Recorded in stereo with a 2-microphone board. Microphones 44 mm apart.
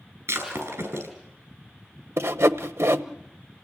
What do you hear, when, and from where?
0.3 s breaking glass: 80° right, 6 m
2.2 s sawing: 85° right, 1.0 m